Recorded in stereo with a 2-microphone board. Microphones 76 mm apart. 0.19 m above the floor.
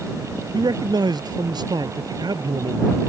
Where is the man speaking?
70° right (ahead or behind).